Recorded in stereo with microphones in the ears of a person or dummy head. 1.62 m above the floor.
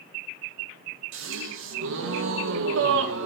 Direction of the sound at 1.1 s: 80° right.